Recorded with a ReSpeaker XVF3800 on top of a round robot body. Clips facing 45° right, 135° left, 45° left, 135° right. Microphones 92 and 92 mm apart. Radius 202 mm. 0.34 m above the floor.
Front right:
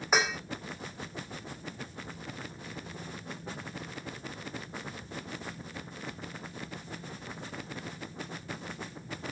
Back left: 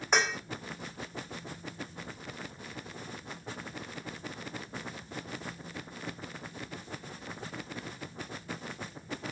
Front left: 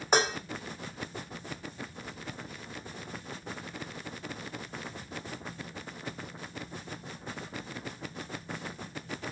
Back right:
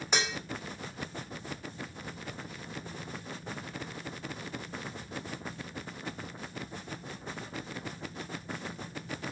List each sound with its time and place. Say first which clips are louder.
0.1 s dishes clattering: even, front left 6 dB; 40° left, 0.6 m